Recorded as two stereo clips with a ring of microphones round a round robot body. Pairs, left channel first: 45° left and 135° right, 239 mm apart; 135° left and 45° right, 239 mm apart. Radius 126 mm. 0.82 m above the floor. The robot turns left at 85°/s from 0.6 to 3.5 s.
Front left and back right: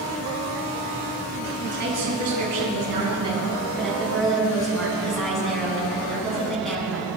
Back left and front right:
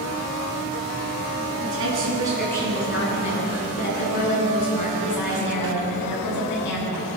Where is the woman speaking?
65° right, 8 m; by 7.1 s 135° left, 8 m.